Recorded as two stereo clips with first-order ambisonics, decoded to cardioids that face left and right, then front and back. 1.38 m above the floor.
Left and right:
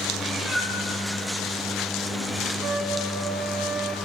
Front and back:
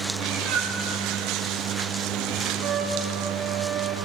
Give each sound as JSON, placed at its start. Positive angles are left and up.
{"t": 0.1, "sound": "a cat meowing", "azimuth_deg": 180, "distance_m": 4.5}
{"t": 2.6, "sound": "a trumpet", "azimuth_deg": -140, "distance_m": 1.6}